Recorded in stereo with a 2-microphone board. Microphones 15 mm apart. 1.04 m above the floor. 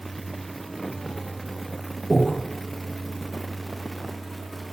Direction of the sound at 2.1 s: 15° right (ahead or behind).